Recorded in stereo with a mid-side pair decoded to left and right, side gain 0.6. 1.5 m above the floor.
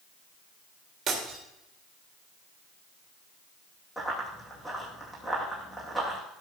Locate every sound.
1.1 s breaking glass: 40° right, 3.5 m
4.0 s running footsteps: 5° right, 5 m